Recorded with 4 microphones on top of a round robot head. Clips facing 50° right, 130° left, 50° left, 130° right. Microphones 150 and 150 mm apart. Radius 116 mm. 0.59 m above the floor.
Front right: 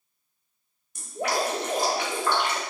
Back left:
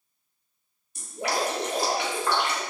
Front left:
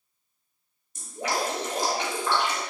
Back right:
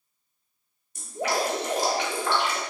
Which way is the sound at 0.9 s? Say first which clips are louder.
Front right 1 dB, back right 2 dB; 90° right.